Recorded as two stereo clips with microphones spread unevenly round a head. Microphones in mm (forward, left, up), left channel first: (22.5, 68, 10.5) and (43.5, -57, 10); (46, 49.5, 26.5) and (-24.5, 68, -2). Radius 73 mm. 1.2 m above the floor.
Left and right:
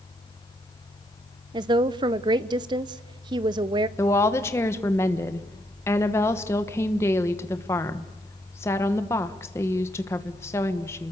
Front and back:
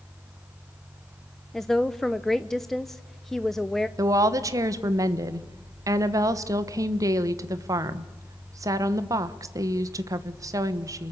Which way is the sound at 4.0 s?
170° left.